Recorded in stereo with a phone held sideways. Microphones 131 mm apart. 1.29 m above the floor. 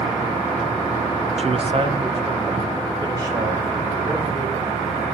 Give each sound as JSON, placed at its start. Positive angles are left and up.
{"t": 1.4, "sound": "a man speaking", "side_deg": -50, "distance_m": 0.9}